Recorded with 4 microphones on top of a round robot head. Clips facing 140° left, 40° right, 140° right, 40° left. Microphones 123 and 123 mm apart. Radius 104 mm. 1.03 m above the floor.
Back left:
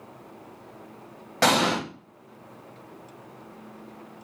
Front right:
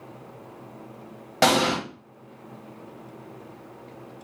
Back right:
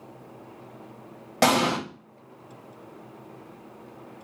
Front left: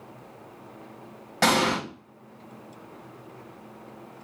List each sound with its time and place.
1.4 s an explosion: 115° right, 1.1 m